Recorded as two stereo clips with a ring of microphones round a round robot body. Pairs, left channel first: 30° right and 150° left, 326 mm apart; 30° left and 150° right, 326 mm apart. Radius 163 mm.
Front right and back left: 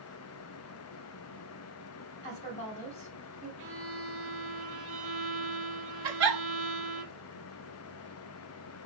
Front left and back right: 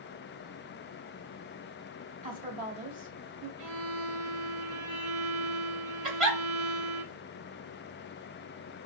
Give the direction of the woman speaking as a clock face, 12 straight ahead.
3 o'clock.